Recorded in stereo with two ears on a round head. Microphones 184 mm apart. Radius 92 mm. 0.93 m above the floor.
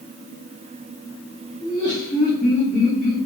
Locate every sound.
1.6 s laughter: 20° left (ahead or behind), 1.0 m; by 3.2 s 35° left (ahead or behind), 2.5 m